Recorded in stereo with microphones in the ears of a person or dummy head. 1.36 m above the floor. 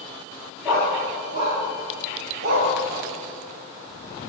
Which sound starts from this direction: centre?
A dog barking, at 0.7 s.